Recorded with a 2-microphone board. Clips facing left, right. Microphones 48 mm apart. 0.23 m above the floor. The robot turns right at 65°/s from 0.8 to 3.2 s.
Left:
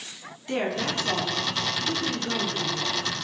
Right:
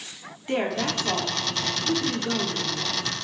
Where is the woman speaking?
20° right (ahead or behind), 1.0 m; by 3.1 s 15° left (ahead or behind), 1.0 m.